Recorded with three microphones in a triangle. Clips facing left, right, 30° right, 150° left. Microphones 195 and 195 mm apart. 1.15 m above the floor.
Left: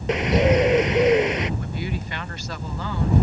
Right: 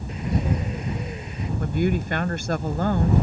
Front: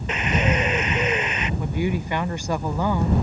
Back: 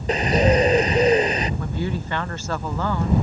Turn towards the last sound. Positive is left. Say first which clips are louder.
# right 7 dB, front 2 dB
turn(degrees=-105)